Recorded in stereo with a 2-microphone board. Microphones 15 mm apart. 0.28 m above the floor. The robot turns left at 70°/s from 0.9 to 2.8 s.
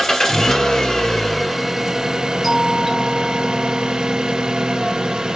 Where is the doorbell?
10° right (ahead or behind), 1.8 m; by 3.9 s 15° right (ahead or behind), 1.8 m.